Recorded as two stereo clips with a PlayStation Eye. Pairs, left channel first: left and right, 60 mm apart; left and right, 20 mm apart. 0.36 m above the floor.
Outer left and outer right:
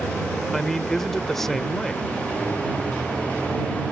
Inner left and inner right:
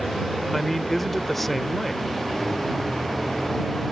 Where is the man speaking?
5° left (ahead or behind).